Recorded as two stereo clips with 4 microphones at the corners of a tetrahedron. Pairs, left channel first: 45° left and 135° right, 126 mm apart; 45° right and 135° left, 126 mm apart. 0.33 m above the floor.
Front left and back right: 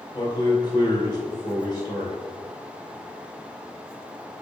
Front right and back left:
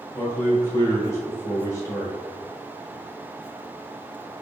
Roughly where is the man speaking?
Ahead.